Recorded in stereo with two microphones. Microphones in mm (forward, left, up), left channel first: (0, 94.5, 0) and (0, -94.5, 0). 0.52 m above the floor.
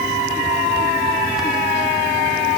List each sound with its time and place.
Only background noise.